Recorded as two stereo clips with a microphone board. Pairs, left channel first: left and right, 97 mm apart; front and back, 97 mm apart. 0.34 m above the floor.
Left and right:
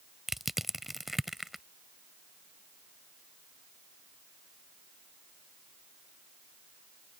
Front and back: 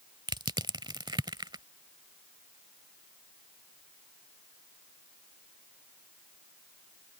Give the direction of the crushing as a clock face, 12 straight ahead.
6 o'clock.